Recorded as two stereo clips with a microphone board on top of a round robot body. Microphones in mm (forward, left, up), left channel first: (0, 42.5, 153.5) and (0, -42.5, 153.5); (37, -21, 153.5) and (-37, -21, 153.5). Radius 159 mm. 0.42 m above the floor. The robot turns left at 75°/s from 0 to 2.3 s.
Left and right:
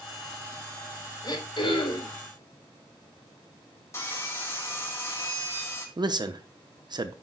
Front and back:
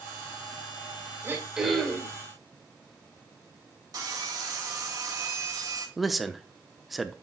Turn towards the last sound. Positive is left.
turn(degrees=-90)